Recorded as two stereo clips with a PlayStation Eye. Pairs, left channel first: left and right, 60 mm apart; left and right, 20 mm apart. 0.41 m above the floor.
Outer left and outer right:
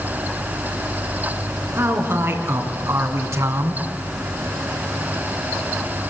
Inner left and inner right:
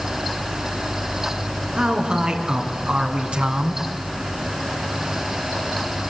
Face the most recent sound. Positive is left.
turn(degrees=-65)  # may be behind; listen again after turning